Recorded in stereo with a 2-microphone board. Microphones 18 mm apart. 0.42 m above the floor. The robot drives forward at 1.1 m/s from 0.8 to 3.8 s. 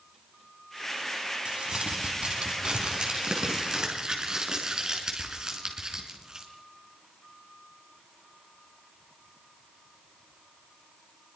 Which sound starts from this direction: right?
Crumpling, at 1.4 s.